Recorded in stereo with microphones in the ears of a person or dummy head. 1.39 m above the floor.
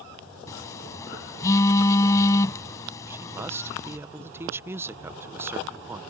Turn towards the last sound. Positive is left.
turn(degrees=-15)  # may be behind; listen again after turning